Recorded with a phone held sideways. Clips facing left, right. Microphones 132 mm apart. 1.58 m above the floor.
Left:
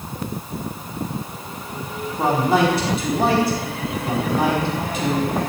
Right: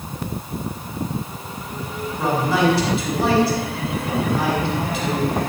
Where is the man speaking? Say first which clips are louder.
Left 2 dB; 50° left (ahead or behind), 5 m.